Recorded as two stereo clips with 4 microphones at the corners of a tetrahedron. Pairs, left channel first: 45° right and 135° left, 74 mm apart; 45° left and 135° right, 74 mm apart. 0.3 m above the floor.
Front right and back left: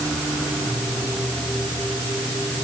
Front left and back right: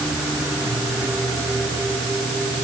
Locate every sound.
Only background noise.